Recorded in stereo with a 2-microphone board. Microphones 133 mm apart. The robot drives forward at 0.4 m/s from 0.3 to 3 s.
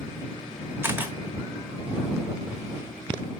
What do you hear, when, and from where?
0.8 s a camera shutter: 15° right (ahead or behind), 1.1 m